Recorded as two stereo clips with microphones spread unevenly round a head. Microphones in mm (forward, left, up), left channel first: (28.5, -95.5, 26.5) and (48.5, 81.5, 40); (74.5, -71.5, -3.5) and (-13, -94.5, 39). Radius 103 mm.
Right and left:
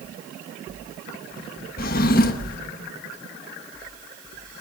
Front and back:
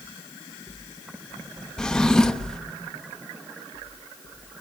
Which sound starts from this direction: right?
A drawer, at 1.8 s.